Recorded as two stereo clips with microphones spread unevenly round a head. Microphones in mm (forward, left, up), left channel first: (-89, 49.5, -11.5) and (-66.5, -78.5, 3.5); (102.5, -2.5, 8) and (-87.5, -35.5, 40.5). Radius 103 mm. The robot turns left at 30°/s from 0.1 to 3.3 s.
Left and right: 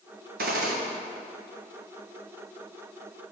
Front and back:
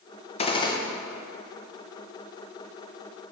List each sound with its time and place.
0.4 s a gunshot: 45° right, 0.9 m; by 0.8 s 55° right, 0.9 m